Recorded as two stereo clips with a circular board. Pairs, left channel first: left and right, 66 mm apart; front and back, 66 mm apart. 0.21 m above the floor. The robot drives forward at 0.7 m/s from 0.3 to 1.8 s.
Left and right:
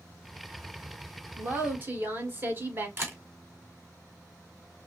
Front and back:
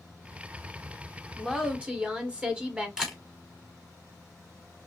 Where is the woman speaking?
90° right, 1.2 m; by 2.9 s 120° right, 1.2 m.